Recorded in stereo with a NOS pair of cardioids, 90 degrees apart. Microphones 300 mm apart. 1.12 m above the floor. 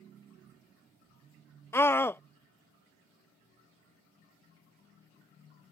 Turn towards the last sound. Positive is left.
turn(degrees=5)